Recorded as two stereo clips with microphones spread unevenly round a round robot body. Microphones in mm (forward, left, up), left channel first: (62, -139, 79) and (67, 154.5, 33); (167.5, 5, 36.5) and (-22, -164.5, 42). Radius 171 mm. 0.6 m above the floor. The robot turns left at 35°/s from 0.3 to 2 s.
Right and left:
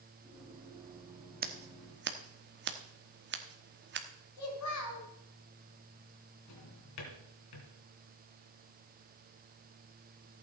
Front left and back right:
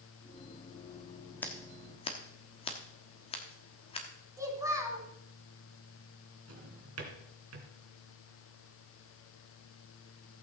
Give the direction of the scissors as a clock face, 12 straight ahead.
8 o'clock.